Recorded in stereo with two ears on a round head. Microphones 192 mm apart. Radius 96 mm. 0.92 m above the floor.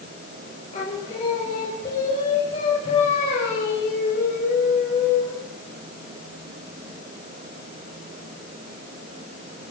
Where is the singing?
30° left (ahead or behind), 5 m.